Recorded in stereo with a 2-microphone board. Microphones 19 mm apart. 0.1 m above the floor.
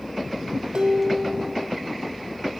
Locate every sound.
0.7 s dishes clattering: 50° right (ahead or behind), 2.5 m